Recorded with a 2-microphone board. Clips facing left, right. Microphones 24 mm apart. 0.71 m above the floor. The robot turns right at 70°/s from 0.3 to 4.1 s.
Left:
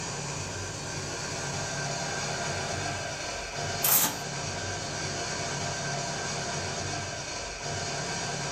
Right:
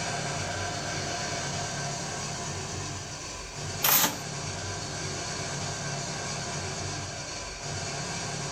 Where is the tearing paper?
35° right (ahead or behind), 0.6 m; by 4.2 s 20° right (ahead or behind), 0.6 m.